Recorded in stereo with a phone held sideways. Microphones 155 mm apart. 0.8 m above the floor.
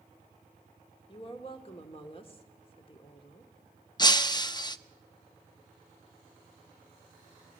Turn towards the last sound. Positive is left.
turn(degrees=30)  # may be behind; listen again after turning